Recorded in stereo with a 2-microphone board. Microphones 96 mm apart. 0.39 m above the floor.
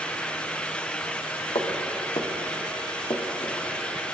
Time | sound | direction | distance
1.6 | footsteps | 65° left (ahead or behind) | 4.5 m